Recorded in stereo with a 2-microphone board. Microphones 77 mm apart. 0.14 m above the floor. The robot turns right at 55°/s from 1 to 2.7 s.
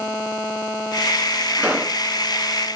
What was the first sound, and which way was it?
A pop, 15° right (ahead or behind).